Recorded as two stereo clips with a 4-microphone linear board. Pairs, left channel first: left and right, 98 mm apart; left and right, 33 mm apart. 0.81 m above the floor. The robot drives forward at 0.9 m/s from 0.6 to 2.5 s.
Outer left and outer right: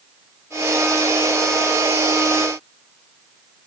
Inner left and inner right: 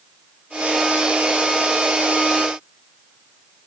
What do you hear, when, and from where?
Only background noise.